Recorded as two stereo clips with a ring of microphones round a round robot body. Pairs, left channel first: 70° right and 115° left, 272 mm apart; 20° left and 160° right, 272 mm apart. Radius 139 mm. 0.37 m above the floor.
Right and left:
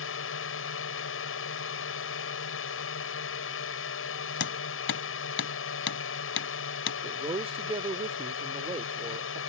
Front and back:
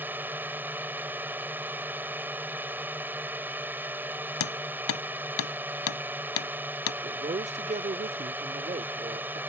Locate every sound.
0.0 s a drone: 75° right
4.4 s hammering: 20° right
7.0 s a man speaking: 160° left